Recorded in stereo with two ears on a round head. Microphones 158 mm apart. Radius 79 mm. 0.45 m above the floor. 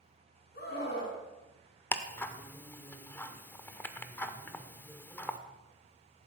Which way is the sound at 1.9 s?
10° left (ahead or behind).